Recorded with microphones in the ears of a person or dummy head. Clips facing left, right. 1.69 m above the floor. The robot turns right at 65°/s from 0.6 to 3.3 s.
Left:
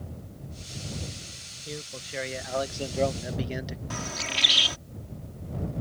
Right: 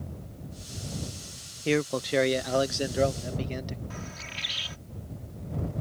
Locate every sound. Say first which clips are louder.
1.6 s a man speaking: right 14 dB; 100° right; by 3.8 s 10° left
3.9 s a bird: left 6 dB; 60° left (ahead or behind)